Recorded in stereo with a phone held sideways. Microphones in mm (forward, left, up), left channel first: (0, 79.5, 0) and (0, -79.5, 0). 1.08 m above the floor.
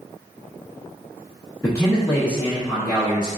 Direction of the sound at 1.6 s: 15° left (ahead or behind).